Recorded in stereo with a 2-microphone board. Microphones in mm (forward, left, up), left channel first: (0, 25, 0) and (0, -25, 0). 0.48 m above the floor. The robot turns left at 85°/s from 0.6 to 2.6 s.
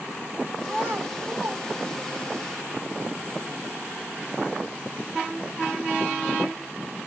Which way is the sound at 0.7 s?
30° right (ahead or behind).